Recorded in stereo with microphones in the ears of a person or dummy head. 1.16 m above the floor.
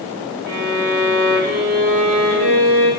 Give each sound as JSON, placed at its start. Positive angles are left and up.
{"t": 0.5, "sound": "a violin", "side_deg": -50, "distance_m": 0.9}